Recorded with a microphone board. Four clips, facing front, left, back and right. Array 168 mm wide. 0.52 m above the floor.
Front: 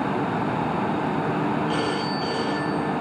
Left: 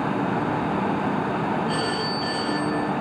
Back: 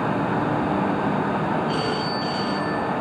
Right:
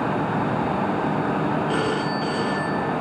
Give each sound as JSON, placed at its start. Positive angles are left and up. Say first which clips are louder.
{"t": 1.7, "sound": "a phone ringing", "louder": "right 2 dB, even", "azimuth_deg": -85, "distance_m": 4.5}